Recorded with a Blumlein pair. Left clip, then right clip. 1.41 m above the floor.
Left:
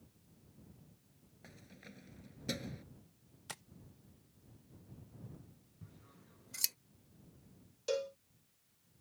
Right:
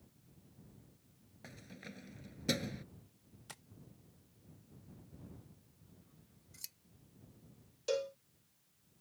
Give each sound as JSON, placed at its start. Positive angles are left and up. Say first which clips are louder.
{"t": 1.4, "sound": "keys jangling", "louder": "right 5 dB", "azimuth_deg": -15}
{"t": 3.5, "sound": "tapping", "louder": "left 5 dB", "azimuth_deg": 15}
{"t": 5.8, "sound": "scissors", "louder": "left 8 dB", "azimuth_deg": 35}
{"t": 7.9, "sound": "a cowbell", "louder": "right 1 dB", "azimuth_deg": 0}